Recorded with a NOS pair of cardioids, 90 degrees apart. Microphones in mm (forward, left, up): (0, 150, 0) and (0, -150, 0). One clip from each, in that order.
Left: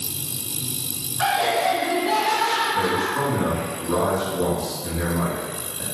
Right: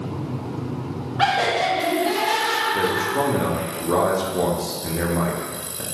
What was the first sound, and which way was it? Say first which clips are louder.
Laughter: right 1 dB; 50° right.